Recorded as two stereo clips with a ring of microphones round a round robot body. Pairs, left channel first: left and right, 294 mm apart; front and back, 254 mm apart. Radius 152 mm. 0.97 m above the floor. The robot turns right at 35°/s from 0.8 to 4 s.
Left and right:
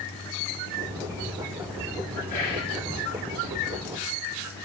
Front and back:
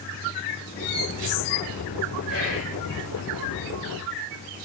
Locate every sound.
2.3 s whispering: 25° left, 3 m; by 2.8 s 40° left, 3 m